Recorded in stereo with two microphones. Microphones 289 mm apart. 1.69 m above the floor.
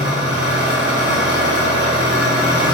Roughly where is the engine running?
Right.